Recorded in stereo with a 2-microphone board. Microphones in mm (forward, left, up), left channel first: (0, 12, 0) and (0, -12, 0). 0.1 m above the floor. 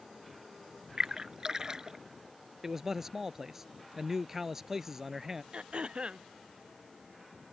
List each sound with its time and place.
1.0 s a splash: 25° right (ahead or behind)
2.6 s a man speaking: 20° right (ahead or behind)
5.5 s throat clearing: 40° right (ahead or behind)